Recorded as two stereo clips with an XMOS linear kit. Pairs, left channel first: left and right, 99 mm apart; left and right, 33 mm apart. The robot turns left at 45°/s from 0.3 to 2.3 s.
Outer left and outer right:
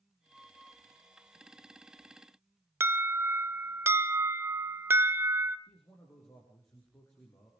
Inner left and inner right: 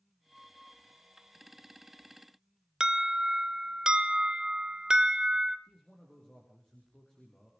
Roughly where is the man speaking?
Left.